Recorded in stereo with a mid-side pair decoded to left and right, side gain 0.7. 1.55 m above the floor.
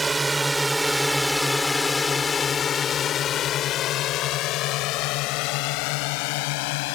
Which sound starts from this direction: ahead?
A drone, at 0.0 s.